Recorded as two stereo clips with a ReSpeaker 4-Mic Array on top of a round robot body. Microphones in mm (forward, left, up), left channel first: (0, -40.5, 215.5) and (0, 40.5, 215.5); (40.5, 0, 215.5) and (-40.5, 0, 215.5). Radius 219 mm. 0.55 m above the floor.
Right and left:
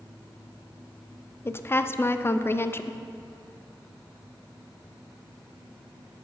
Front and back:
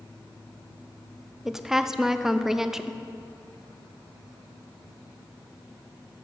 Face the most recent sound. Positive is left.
turn(degrees=-100)